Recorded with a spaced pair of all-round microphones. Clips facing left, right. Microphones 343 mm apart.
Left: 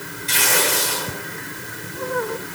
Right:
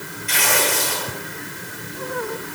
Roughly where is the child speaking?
I don't hear a child speaking.